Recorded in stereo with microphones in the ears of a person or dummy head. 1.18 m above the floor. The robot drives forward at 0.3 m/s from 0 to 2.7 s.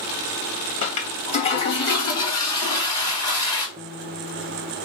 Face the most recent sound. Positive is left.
turn(degrees=-10)  # may be behind; listen again after turning